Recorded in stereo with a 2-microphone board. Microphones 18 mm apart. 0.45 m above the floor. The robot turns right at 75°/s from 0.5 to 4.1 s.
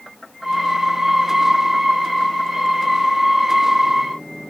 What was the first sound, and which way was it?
Only background noise.